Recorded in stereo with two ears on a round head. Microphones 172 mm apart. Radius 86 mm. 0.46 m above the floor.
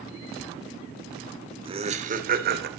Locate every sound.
1.6 s laughter: 30° right (ahead or behind), 1.3 m; by 2.7 s 55° right (ahead or behind), 1.5 m